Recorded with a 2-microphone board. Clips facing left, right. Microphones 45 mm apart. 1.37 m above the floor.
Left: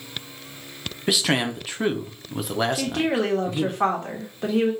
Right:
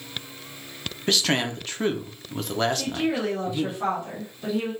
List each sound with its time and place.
1.1 s a man speaking: 5° left (ahead or behind), 0.7 m
2.7 s a woman speaking: 60° left (ahead or behind), 1.5 m